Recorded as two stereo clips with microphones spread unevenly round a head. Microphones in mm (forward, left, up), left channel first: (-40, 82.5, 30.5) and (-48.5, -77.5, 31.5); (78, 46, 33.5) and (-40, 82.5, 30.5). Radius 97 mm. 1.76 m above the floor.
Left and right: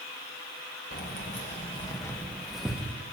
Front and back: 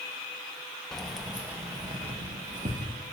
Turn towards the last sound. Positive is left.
turn(degrees=-170)